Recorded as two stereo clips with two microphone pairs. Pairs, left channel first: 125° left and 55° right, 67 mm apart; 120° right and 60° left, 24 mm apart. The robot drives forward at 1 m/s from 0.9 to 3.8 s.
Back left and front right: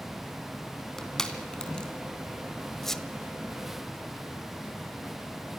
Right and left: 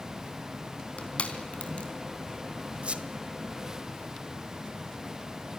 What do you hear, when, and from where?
1.0 s crushing: 150° right, 3 m; by 1.9 s 160° right, 4 m
2.8 s a squeak: 40° left, 1.4 m; by 3.0 s 50° left, 1.3 m